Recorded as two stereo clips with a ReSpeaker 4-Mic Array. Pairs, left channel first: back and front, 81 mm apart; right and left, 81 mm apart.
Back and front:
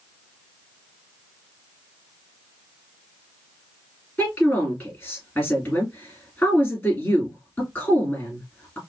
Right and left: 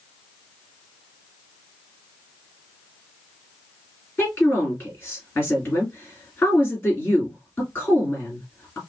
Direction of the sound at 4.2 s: 135° right.